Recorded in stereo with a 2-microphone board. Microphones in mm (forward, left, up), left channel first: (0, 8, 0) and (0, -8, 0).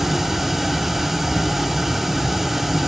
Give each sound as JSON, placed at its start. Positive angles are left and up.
{"t": 0.0, "sound": "running water", "side_deg": -15, "distance_m": 2.0}